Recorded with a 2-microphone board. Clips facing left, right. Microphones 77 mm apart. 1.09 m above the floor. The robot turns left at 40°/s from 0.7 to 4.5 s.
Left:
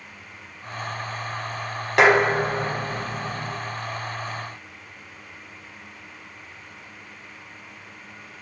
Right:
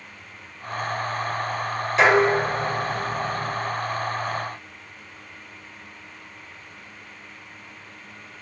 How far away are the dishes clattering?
About 0.7 m.